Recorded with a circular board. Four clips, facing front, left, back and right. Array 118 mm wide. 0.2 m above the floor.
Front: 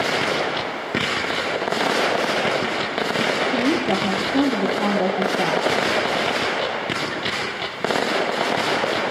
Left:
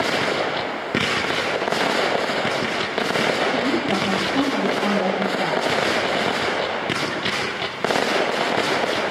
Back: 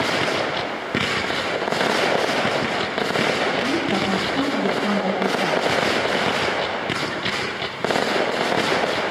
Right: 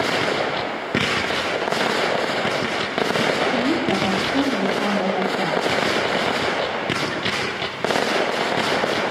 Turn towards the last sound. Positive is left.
turn(degrees=-25)